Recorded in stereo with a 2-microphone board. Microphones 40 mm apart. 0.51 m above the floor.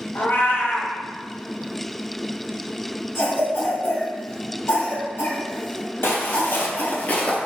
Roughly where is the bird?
I don't hear a bird.